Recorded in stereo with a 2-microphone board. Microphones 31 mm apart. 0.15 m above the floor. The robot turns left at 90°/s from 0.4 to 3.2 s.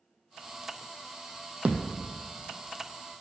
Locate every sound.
1.6 s a thud: 40° right, 0.8 m; by 2.0 s 75° right, 0.8 m